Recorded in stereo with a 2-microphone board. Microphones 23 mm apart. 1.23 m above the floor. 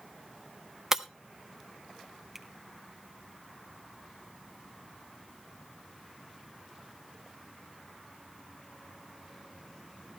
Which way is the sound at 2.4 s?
10° right (ahead or behind).